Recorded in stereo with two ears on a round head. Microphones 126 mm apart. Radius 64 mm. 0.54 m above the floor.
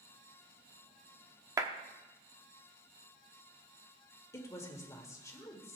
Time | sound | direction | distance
1.6 | a clap | 25° right (ahead or behind) | 0.9 m
4.3 | a woman speaking | 20° left (ahead or behind) | 1.7 m